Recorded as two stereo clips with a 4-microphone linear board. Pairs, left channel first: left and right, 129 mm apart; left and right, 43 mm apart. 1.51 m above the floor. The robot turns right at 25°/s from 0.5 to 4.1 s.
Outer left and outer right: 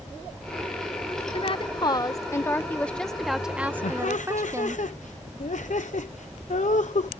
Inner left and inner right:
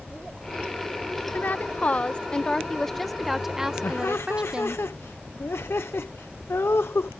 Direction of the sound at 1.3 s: 135° left.